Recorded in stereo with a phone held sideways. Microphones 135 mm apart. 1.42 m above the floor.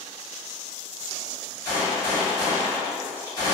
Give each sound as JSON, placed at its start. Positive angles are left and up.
{"t": 1.6, "sound": "a gunshot", "side_deg": 25, "distance_m": 1.8}